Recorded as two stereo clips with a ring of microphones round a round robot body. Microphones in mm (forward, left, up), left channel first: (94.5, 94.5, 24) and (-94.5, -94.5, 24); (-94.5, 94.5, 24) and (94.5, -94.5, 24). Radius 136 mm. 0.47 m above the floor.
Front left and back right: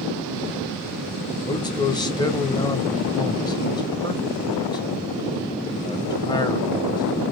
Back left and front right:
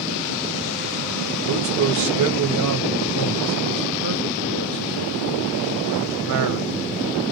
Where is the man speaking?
30° right, 1.9 m.